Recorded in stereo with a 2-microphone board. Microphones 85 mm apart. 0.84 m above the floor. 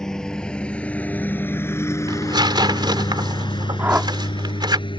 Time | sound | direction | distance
0.0 | a lawn mower | 5° left (ahead or behind) | ?
2.1 | tearing paper | 60° right (ahead or behind) | ?
3.8 | a whoosh | 25° right (ahead or behind) | ?